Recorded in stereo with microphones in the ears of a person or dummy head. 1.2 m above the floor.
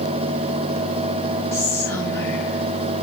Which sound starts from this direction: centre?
Whispering, at 1.5 s.